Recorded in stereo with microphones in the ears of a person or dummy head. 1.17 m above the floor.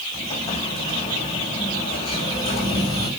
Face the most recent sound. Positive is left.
turn(degrees=30)  # may be behind; listen again after turning